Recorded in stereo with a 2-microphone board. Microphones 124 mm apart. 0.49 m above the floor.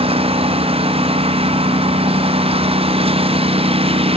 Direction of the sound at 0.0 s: 50° right (ahead or behind).